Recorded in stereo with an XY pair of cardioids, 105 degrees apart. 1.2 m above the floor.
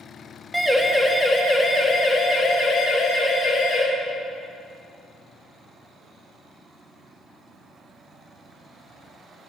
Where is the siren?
Straight ahead, 2.5 m; by 3.8 s 50° left, 5 m.